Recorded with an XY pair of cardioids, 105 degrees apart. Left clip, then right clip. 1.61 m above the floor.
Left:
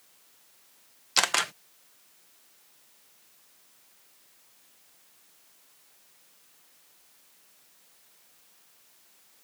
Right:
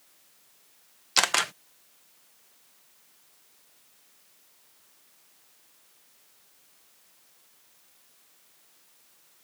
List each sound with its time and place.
1.2 s a camera shutter: 10° right